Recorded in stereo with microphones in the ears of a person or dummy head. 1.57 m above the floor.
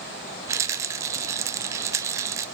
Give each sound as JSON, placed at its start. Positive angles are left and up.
{"t": 0.5, "sound": "a rattle", "side_deg": -20, "distance_m": 0.7}